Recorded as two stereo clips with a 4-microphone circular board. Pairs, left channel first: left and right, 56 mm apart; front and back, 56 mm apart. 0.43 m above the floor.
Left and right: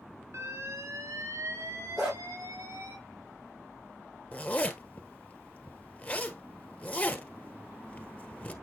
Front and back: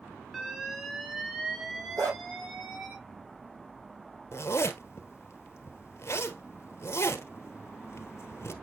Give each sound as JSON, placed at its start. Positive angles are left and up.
{"t": 0.3, "sound": "an alarm", "azimuth_deg": -100, "distance_m": 4.0}
{"t": 2.0, "sound": "a dog barking", "azimuth_deg": -170, "distance_m": 4.5}
{"t": 4.3, "sound": "a zipper", "azimuth_deg": 30, "distance_m": 1.4}